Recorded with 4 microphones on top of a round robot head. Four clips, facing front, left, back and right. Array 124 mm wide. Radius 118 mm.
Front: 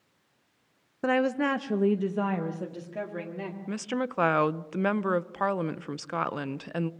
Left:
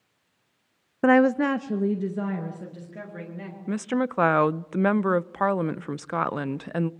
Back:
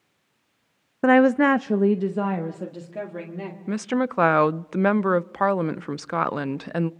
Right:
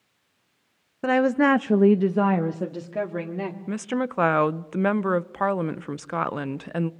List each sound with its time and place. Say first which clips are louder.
1.0 s a woman speaking: left 1 dB, back 9 dB; 135° left, 0.6 m; by 3.6 s 95° right, 3 m
3.7 s a woman speaking: left 3 dB, back 8 dB; 165° left, 0.6 m